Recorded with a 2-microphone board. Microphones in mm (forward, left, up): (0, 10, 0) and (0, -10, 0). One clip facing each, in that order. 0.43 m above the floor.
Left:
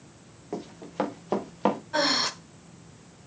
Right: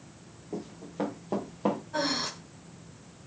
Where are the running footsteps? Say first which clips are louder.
Left 4 dB; 65° left (ahead or behind), 4 m; by 1.8 s 50° left (ahead or behind), 4 m.